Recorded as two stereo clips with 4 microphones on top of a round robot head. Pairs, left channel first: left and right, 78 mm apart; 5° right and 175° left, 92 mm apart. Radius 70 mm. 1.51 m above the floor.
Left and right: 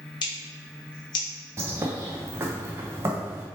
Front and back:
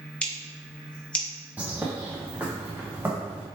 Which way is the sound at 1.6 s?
115° right.